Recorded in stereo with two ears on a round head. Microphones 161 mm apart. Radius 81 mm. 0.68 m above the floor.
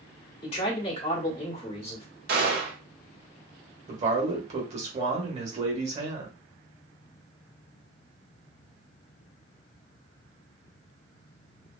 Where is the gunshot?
50° right (ahead or behind), 1.2 m.